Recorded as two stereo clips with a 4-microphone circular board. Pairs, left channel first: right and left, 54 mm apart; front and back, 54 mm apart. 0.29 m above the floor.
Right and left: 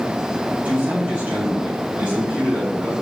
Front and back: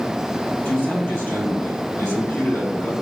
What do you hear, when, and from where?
0.7 s a man speaking: 35° left, 2 m